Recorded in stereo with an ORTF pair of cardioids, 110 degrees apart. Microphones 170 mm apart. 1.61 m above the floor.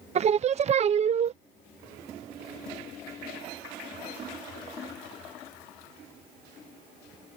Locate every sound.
0.1 s singing: 40° right